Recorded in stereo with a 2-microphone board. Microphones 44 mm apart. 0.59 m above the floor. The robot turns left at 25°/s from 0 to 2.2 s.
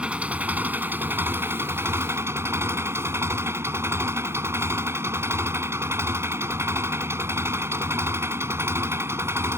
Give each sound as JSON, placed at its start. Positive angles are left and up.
{"t": 0.0, "sound": "an engine running", "azimuth_deg": -30}